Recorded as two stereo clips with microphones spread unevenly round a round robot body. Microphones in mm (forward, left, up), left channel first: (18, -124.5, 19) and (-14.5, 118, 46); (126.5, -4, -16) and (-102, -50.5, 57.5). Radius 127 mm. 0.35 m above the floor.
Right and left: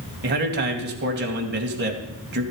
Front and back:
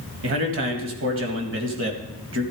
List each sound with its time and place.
0.2 s a man speaking: 145° left, 2.5 m